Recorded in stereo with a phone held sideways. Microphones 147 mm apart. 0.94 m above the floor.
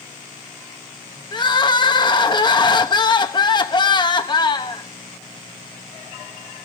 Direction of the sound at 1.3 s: 30° left (ahead or behind).